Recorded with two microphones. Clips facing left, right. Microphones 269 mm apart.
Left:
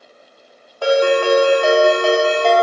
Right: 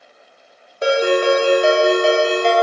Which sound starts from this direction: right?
A ringtone, at 0.8 s.